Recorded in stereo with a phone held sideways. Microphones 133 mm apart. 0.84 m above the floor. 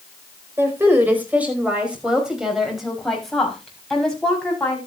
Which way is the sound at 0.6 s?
20° right (ahead or behind).